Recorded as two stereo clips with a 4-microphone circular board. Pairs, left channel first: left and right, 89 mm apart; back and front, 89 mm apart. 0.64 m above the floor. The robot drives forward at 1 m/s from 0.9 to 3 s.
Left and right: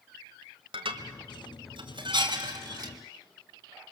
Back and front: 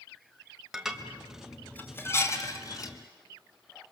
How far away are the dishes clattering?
About 1.9 m.